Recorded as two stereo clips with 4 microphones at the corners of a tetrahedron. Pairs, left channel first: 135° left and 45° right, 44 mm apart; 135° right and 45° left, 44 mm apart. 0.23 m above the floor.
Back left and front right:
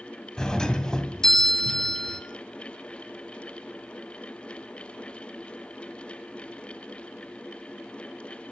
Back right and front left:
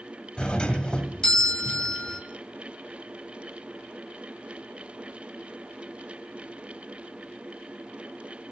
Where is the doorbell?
170° right, 1.8 m.